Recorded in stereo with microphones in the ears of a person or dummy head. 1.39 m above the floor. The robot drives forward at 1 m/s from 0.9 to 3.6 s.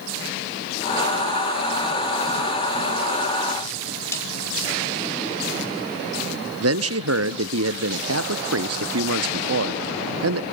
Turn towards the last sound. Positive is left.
turn(degrees=-75)  # may be behind; listen again after turning